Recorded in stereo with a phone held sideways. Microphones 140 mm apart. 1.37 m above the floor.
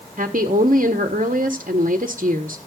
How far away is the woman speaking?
About 1.3 m.